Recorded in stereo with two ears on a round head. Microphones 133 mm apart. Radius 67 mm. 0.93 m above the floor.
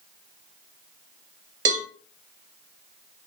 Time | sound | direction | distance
1.6 | a cowbell | 55° right (ahead or behind) | 1.1 m